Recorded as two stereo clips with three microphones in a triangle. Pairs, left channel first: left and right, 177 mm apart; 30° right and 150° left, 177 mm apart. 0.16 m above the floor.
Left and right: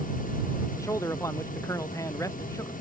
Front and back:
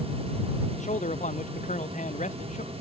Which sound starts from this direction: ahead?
A man speaking, at 0.8 s.